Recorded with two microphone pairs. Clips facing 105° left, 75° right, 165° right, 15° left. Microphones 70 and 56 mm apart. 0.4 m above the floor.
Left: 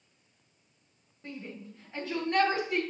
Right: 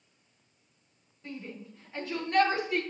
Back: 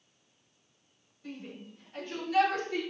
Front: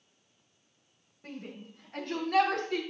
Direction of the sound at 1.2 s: 55° left.